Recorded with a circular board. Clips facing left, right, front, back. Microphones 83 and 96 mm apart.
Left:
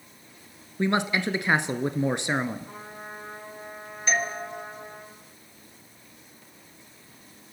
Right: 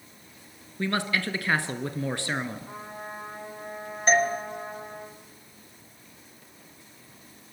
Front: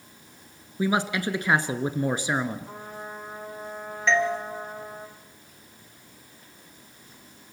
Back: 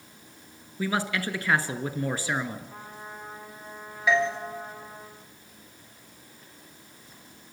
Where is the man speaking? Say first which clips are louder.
Left 3 dB, front 3 dB; 45° left, 1.1 m.